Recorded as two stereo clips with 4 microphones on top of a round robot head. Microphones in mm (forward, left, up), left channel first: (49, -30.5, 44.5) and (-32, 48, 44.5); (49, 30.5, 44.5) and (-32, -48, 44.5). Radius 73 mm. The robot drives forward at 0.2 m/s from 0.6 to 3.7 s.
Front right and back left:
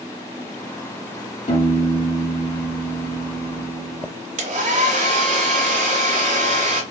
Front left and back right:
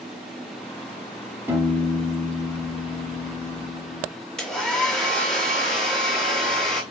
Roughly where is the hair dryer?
Behind left.